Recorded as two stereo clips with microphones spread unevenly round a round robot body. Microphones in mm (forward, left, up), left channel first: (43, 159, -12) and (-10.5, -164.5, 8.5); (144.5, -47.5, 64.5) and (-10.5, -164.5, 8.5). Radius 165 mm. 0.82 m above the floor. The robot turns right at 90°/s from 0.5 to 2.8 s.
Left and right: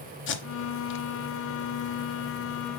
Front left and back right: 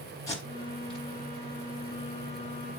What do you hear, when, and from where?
0.3 s tape being pulled: 60° left, 0.7 m; by 1.1 s 110° left, 0.7 m